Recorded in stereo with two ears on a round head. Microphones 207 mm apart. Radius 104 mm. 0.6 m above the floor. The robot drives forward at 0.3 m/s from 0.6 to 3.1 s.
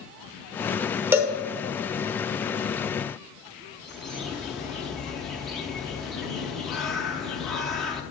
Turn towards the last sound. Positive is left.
turn(degrees=0)  # may be behind; listen again after turning